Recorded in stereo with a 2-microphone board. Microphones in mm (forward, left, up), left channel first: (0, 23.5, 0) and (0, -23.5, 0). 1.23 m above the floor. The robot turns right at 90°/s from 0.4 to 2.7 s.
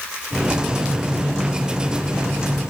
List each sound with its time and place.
Only background noise.